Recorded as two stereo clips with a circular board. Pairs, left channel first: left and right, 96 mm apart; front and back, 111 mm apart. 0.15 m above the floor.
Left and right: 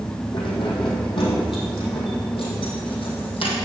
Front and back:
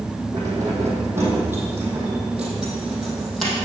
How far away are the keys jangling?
About 4 m.